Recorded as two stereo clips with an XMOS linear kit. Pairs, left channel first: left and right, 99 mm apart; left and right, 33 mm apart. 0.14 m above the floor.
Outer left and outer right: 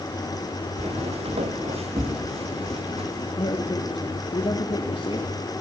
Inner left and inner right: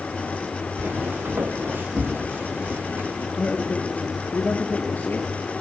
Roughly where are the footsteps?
Right.